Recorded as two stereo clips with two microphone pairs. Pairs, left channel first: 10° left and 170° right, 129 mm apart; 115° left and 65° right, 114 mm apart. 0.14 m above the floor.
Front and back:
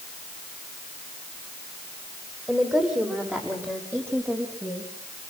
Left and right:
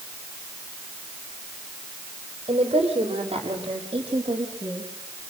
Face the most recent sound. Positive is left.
turn(degrees=-105)